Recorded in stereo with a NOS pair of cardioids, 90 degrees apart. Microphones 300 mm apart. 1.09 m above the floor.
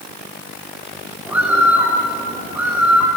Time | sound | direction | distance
1.3 | a bird | 5° right | 2.5 m